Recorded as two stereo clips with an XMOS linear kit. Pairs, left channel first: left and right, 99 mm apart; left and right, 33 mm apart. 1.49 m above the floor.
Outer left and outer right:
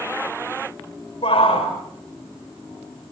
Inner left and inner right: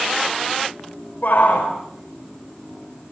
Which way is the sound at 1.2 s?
75° left (ahead or behind).